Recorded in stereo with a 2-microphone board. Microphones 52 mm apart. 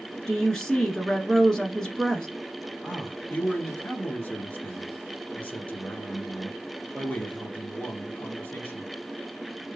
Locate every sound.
0.3 s a woman speaking: 10° left (ahead or behind), 1.1 m
2.8 s a man speaking: 30° left (ahead or behind), 1.6 m